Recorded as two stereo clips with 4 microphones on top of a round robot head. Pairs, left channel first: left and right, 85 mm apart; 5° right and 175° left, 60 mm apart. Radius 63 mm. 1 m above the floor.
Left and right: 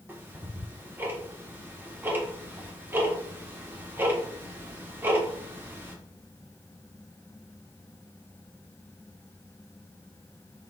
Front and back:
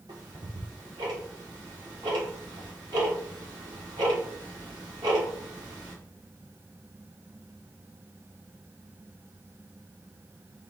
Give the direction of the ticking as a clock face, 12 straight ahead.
5 o'clock.